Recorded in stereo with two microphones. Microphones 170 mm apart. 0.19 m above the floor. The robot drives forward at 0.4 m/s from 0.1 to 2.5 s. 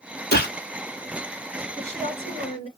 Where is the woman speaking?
40° left (ahead or behind), 1.6 m.